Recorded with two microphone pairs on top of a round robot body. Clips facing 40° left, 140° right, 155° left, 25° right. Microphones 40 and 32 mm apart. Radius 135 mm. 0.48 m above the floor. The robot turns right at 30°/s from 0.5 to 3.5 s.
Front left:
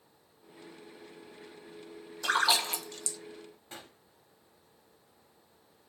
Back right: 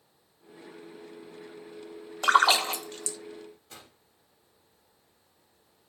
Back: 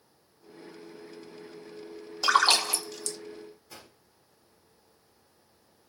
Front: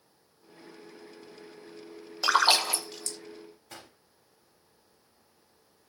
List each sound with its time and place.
2.2 s a splash: 105° right, 0.7 m; by 3.2 s 80° right, 0.7 m
3.7 s a gunshot: 5° right, 2.0 m